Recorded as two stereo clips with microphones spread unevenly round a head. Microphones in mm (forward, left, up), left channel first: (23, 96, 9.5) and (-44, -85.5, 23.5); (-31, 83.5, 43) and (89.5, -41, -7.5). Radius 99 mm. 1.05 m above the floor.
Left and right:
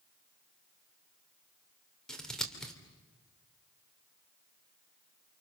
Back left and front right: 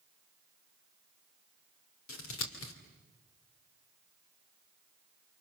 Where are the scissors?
155° left, 3 m.